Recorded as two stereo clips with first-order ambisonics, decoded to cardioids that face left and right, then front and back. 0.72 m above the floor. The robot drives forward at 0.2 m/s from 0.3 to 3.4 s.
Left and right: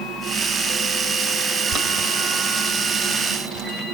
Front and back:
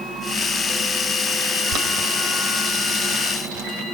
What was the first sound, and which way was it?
Boiling, 155° right.